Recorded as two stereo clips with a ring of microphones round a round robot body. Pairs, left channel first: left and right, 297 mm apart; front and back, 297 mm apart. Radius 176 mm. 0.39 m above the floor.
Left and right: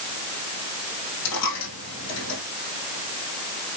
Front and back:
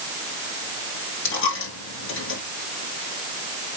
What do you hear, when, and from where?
1.2 s a dropped coin: 50° left, 5 m